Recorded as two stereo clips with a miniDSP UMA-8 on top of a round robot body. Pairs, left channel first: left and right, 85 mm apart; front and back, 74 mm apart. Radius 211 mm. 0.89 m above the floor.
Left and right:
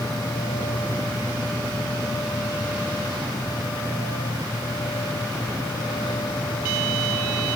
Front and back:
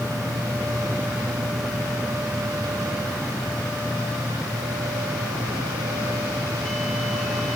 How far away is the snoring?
No snoring in this recording.